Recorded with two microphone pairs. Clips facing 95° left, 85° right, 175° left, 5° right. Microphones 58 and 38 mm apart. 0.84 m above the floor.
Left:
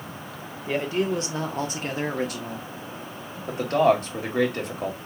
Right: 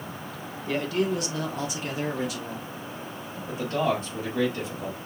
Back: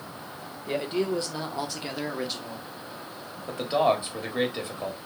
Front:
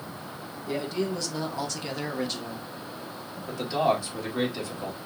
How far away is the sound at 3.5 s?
About 1.6 m.